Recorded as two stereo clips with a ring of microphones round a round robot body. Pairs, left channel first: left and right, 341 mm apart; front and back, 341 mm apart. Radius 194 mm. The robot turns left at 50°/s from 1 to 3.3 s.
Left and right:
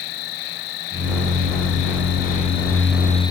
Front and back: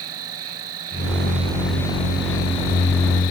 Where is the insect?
125° left; by 3.3 s 10° left.